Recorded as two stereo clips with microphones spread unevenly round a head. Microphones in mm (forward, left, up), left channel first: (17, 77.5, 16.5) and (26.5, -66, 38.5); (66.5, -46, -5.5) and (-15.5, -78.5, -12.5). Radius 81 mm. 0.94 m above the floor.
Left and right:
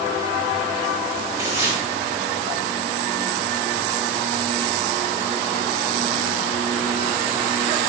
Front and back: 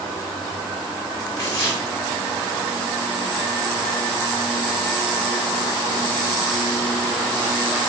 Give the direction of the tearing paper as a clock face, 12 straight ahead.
12 o'clock.